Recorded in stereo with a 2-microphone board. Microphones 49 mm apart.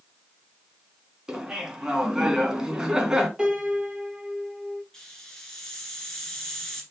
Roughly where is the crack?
No crack in this recording.